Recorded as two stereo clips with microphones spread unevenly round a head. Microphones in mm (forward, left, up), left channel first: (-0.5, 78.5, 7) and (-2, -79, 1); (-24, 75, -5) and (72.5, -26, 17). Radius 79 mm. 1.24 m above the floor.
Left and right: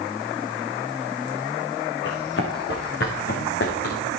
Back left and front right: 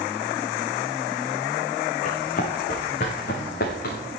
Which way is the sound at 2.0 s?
105° left.